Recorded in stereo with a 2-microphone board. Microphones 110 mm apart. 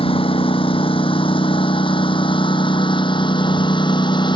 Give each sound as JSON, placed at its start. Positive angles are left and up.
{"t": 0.0, "sound": "a lawn mower", "side_deg": 55}